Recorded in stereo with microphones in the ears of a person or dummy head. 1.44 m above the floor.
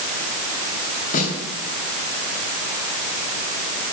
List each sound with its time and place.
1.1 s a snare drum: 50° left (ahead or behind), 10 m